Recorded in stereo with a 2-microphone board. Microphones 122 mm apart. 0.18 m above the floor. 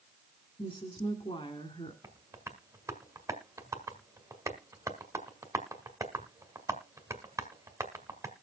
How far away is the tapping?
About 1.6 m.